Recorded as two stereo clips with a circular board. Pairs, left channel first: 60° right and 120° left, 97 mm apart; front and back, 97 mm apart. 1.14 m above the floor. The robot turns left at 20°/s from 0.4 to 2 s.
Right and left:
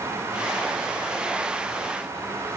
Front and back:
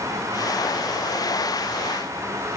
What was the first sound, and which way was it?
Only background noise.